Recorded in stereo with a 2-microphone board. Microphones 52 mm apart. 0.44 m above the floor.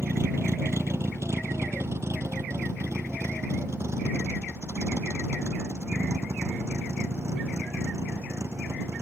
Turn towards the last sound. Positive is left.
turn(degrees=-60)  # may be behind; listen again after turning